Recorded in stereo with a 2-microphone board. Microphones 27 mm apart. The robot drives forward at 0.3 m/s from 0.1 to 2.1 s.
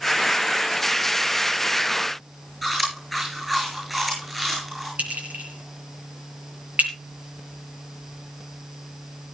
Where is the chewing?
5° right (ahead or behind), 7.5 m.